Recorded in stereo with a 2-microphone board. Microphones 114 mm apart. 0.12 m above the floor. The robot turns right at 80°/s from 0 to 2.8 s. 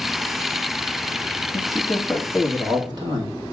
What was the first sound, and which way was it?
A man speaking, 125° left.